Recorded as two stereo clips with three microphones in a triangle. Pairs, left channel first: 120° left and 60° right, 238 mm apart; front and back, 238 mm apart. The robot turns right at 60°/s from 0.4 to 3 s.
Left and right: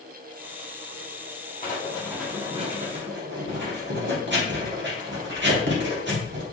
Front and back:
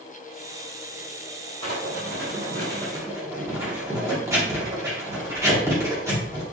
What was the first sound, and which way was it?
Writing, 175° left.